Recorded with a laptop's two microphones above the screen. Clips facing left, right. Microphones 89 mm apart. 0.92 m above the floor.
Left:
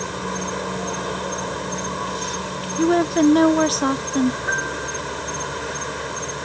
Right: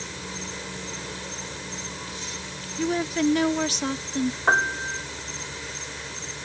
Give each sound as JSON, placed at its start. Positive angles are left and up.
{"t": 0.0, "sound": "an insect", "side_deg": 70}
{"t": 2.8, "sound": "a woman speaking", "side_deg": 45}
{"t": 4.5, "sound": "a piano", "side_deg": -65}